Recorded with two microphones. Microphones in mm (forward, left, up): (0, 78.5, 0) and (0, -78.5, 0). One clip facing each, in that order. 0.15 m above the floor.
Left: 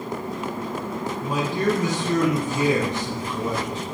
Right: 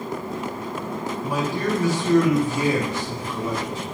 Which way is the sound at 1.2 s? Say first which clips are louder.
Left 2 dB; 20° left (ahead or behind).